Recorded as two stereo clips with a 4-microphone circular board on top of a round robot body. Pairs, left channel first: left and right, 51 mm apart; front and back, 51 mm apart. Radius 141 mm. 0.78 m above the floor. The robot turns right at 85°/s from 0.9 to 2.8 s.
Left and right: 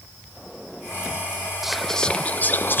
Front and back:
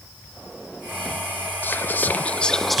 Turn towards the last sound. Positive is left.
turn(degrees=90)